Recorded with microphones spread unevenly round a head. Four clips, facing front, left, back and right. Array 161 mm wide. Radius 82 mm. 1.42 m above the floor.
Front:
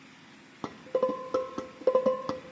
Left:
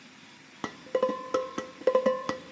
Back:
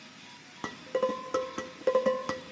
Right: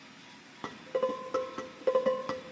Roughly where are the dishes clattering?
Ahead left.